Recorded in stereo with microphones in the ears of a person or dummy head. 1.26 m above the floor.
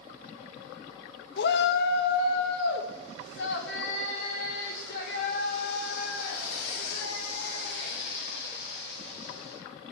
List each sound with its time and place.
1.4 s a shout: 60° left (ahead or behind), 0.6 m; by 9.6 s 65° left (ahead or behind), 6.5 m